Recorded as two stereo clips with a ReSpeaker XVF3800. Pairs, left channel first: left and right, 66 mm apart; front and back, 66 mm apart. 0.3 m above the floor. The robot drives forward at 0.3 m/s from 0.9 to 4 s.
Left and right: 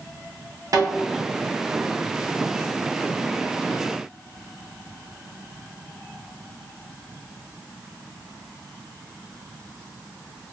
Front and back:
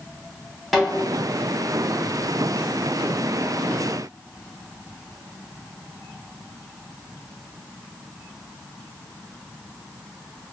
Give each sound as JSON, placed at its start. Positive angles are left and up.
{"t": 0.7, "sound": "a snare drum", "azimuth_deg": -90, "distance_m": 1.7}